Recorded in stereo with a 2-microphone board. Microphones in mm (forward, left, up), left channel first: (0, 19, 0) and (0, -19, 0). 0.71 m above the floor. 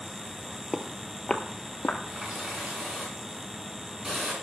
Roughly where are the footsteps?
Right.